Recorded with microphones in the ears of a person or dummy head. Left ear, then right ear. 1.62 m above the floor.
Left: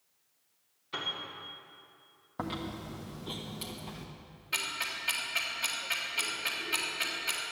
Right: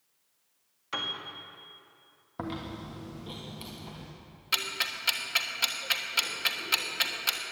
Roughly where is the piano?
Right.